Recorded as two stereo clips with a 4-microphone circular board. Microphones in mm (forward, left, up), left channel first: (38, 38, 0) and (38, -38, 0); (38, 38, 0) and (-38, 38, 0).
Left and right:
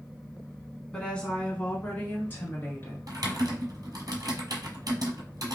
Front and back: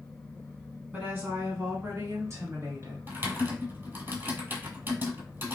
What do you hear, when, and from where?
0.9 s a woman speaking: 150° left, 1.2 m; by 3.0 s 145° left, 2 m
3.1 s typing on a keyboard: 120° right, 1.0 m